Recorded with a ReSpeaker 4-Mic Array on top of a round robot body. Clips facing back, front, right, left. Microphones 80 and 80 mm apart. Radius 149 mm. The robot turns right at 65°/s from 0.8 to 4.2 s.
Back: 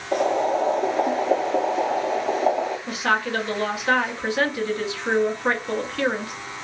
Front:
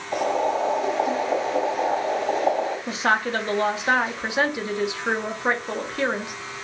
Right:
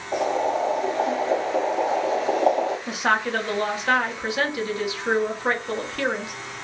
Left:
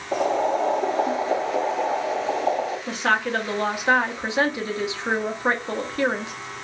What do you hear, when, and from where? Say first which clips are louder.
0.1 s boiling: back 2 dB, left 1 dB; 130° left, 1.1 m; by 2.8 s 105° right, 1.1 m
2.9 s a woman speaking: front 1 dB, even; 30° right, 1.0 m; by 6.3 s 55° left, 1.0 m